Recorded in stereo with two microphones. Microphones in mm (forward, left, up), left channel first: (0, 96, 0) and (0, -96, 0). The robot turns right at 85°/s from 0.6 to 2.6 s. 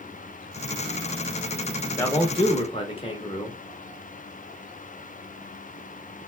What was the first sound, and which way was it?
A man speaking, 25° left.